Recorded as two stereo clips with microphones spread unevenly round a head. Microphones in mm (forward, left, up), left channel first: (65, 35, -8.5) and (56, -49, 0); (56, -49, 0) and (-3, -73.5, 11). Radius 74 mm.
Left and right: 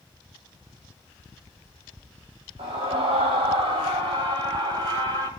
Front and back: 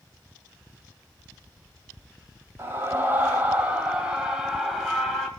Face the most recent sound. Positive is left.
turn(degrees=-65)